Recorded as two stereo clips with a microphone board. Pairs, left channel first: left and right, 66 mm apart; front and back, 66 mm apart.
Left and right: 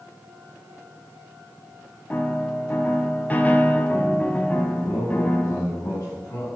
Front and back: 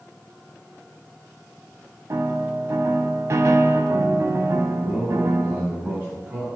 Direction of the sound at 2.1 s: 150° left.